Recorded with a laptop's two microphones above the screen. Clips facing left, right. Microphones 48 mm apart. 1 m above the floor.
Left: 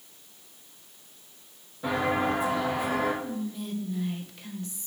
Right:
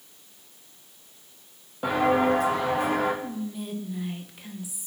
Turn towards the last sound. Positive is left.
turn(degrees=-10)  # may be behind; listen again after turning